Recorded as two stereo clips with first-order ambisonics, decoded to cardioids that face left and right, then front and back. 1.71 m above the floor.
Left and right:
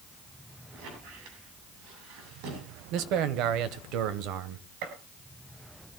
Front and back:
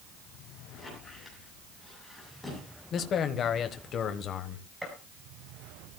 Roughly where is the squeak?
Right.